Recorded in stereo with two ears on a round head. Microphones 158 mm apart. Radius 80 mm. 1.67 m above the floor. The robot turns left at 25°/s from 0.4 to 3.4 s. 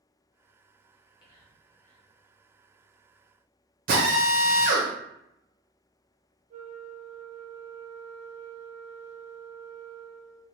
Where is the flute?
40° right (ahead or behind), 0.6 m.